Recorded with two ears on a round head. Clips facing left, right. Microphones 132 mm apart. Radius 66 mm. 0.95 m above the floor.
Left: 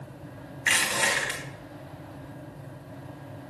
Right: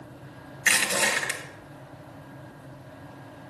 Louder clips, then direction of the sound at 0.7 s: Right 1 dB; 55° right (ahead or behind).